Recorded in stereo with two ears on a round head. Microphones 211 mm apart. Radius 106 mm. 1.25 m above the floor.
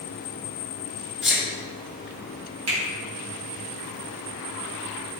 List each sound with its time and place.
1.2 s a sneeze: centre (ahead or behind), 2.5 m
2.7 s a finger snap: 65° right (ahead or behind), 3 m